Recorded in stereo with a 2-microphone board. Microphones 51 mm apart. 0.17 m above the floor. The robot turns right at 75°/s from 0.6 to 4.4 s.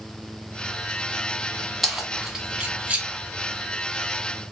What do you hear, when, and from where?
1.8 s keys jangling: centre (ahead or behind), 0.7 m; by 3.1 s 25° right (ahead or behind), 0.7 m